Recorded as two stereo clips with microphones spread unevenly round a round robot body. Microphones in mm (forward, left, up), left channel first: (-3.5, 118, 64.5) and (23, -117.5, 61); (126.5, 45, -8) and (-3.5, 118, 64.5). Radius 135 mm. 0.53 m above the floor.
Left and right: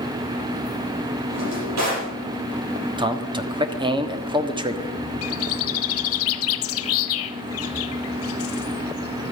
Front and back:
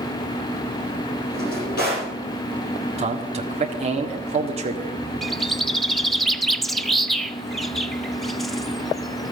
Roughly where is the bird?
Ahead left.